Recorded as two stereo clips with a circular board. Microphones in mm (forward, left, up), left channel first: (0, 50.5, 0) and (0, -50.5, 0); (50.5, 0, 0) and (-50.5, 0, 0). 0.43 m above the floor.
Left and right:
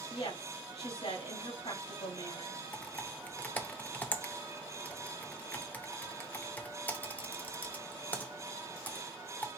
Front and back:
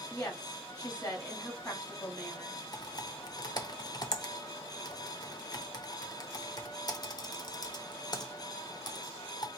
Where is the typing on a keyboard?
20° left, 0.8 m.